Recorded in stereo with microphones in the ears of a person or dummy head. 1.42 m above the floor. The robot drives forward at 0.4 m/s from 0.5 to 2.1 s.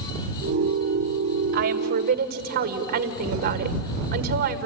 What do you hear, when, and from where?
1.5 s a woman speaking: 55° right (ahead or behind), 1.4 m; by 4.7 s 45° right (ahead or behind), 1.6 m